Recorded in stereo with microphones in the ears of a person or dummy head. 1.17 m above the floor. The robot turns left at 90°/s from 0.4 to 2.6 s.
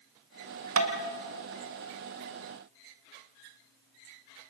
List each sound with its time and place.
0.8 s tapping: 80° right, 2.5 m; by 0.9 s 75° right (ahead or behind), 2.5 m